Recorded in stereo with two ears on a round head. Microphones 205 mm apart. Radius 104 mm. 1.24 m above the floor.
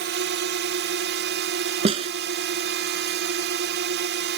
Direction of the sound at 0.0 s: 45° right (ahead or behind).